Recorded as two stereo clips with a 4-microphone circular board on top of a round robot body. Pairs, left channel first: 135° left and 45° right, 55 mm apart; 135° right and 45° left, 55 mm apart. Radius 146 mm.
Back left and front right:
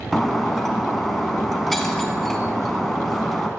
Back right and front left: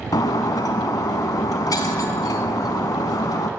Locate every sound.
0.1 s breaking glass: 140° right, 0.5 m